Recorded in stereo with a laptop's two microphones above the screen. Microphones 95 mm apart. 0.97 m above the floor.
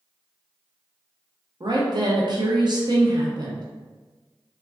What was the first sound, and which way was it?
A woman speaking, 50° right (ahead or behind).